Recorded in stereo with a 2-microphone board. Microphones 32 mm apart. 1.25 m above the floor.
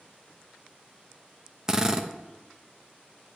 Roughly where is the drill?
Centre.